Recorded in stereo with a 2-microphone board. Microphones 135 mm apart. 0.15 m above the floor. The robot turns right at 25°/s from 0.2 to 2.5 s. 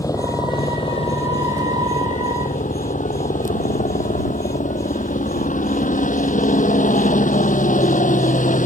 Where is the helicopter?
25° left; by 8.7 s 85° left.